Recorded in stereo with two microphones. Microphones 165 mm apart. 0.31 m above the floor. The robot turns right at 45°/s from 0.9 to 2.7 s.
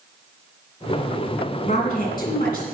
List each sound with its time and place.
1.6 s a woman speaking: 50° left, 3 m; by 2.7 s 100° left, 3 m